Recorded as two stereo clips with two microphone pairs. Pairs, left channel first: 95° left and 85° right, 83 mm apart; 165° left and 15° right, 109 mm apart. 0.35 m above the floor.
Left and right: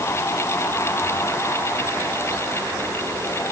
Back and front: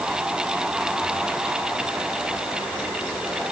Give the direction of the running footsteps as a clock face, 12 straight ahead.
I don't hear running footsteps.